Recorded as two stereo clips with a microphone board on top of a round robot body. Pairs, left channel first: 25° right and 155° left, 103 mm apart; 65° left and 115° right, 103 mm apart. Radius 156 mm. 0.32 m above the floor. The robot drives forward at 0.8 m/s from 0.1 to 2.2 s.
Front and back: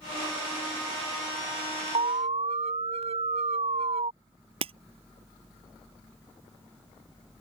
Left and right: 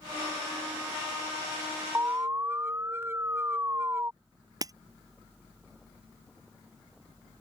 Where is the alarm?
Straight behind.